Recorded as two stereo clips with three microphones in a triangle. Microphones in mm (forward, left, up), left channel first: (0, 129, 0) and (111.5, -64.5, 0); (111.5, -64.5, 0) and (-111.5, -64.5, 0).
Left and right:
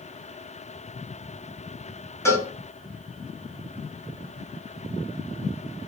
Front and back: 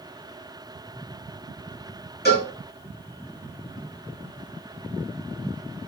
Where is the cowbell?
45° left, 3.5 m.